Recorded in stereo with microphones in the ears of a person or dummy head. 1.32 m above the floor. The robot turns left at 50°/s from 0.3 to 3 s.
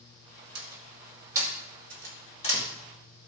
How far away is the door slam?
About 2 m.